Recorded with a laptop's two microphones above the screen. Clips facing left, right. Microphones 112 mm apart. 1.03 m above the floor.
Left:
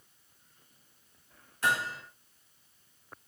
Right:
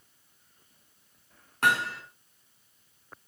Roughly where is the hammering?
Right.